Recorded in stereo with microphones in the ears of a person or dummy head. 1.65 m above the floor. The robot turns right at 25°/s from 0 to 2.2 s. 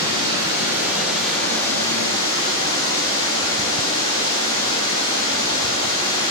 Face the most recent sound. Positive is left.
turn(degrees=25)